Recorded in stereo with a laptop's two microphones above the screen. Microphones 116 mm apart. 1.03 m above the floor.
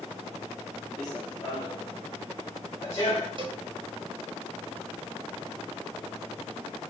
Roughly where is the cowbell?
Right.